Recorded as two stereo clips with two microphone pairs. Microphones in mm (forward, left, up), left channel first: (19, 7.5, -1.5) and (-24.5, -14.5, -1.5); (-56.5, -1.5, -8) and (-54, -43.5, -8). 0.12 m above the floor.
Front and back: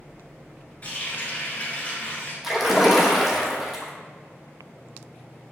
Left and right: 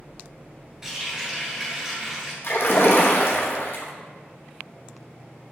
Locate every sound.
0.8 s a running tap: 15° right, 1.3 m
2.4 s a splash: 120° left, 0.9 m